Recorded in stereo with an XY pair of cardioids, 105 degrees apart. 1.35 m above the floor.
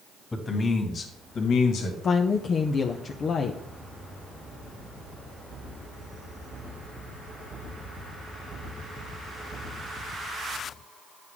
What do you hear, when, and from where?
0.3 s a man speaking: 25° left, 2 m; by 1.9 s 80° left, 2 m
2.0 s a woman speaking: 50° left, 0.7 m